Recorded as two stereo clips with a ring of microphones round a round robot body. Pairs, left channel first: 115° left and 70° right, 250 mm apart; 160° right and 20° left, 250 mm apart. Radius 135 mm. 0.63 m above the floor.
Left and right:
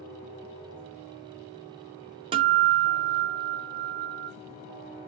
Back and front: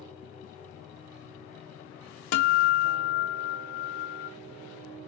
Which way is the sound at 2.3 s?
140° right.